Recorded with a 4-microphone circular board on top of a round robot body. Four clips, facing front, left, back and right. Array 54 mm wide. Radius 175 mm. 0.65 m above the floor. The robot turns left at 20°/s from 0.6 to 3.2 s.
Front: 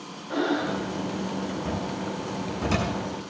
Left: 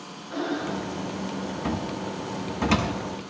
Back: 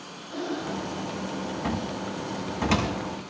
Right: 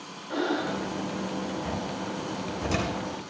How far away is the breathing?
About 2.5 m.